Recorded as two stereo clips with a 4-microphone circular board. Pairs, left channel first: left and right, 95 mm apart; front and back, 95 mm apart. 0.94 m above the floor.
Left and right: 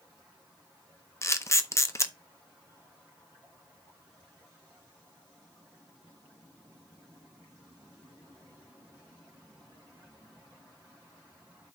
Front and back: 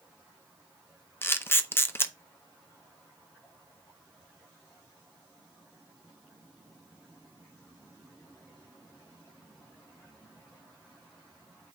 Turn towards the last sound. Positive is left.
turn(degrees=50)